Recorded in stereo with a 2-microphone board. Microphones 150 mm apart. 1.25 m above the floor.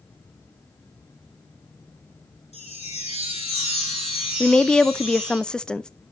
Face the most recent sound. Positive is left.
turn(degrees=5)  # may be behind; listen again after turning